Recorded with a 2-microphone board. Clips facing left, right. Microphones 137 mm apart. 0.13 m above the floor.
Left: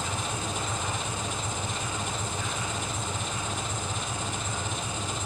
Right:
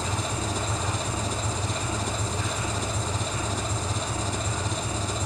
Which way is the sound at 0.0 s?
35° right (ahead or behind).